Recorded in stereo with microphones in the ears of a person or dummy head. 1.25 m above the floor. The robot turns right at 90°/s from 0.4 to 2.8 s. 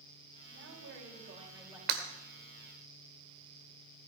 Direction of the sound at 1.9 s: 55° right (ahead or behind).